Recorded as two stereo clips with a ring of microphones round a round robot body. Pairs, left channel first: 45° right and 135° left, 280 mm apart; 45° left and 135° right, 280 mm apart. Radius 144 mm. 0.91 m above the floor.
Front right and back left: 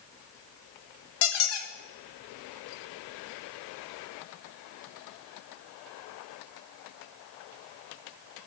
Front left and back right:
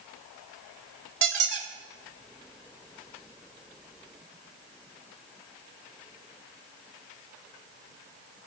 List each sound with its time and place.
1.2 s a squeak: 90° right, 1.1 m